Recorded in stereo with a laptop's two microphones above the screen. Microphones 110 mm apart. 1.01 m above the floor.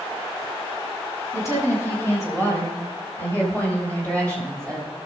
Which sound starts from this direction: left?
A woman speaking, at 1.3 s.